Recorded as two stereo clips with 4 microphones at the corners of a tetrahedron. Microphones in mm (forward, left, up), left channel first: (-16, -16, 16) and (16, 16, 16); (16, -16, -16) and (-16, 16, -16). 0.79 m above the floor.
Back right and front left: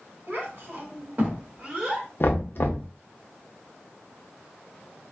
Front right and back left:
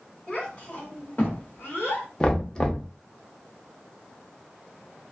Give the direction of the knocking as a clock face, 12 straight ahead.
4 o'clock.